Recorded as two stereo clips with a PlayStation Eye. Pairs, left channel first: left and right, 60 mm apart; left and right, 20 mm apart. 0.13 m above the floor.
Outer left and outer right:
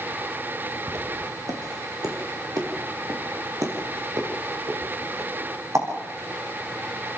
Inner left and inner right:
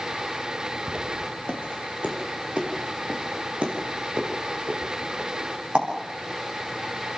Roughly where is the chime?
I don't hear a chime.